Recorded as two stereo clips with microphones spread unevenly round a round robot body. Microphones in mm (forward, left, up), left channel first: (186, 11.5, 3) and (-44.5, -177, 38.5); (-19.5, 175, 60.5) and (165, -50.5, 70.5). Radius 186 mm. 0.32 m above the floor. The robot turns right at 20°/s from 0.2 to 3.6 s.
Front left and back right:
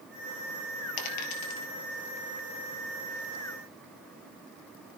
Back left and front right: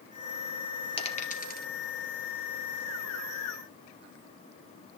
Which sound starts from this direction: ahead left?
A dropped coin, at 1.0 s.